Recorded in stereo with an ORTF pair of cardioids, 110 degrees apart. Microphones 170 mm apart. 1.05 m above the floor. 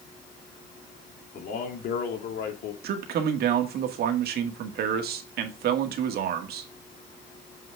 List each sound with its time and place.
1.3 s a man speaking: 60° left, 3 m; by 2.7 s 75° left, 2.5 m
2.8 s a man speaking: 65° right, 1.8 m